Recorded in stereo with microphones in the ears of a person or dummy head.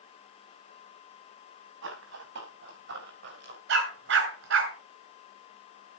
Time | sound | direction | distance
1.8 | running footsteps | 75° right (ahead or behind) | 6.5 m
3.7 | a dog barking | 70° right (ahead or behind) | 6.5 m